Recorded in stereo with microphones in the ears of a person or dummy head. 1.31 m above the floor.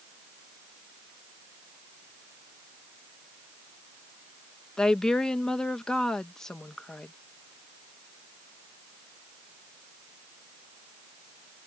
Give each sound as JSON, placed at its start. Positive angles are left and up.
{"t": 4.8, "sound": "a woman speaking", "side_deg": 10}